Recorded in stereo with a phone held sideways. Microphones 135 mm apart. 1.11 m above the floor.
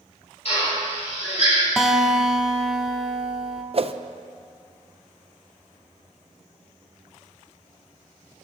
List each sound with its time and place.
0.5 s a drill: 50° left (ahead or behind), 6.5 m
1.8 s a guitar: 5° right (ahead or behind), 1.2 m
3.7 s a whoosh: 45° right (ahead or behind), 0.6 m